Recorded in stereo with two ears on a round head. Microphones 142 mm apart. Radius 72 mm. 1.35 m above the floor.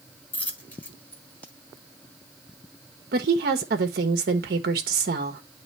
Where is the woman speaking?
65° right (ahead or behind), 1.1 m.